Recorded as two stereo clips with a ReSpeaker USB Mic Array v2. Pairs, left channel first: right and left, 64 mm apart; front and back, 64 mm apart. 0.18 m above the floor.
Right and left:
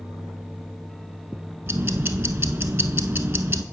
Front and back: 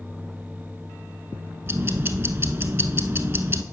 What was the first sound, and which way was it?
Ticking, 135° left.